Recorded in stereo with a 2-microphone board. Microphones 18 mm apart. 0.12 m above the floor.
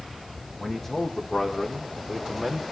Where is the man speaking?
20° left (ahead or behind), 6 m; by 2.6 s 5° right (ahead or behind), 5.5 m.